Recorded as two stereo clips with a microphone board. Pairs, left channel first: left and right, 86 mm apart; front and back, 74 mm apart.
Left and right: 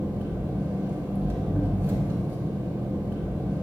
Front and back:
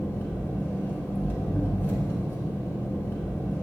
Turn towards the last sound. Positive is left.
turn(degrees=-40)